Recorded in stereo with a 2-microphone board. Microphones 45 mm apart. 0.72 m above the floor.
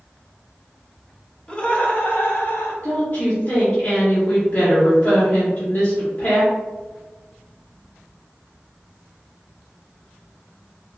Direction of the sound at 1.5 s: 25° left (ahead or behind).